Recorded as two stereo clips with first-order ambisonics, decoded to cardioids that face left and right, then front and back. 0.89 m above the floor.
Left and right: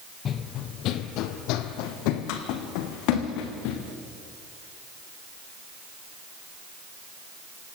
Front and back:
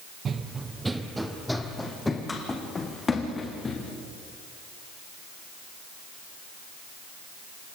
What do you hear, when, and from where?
0.2 s running footsteps: 130° left, 1.1 m; by 3.8 s 70° left, 3.5 m